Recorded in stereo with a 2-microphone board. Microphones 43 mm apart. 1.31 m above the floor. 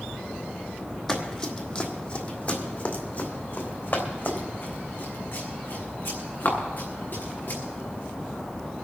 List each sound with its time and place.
1.1 s running footsteps: 10° left (ahead or behind), 2.5 m; by 7.6 s 60° left (ahead or behind), 6 m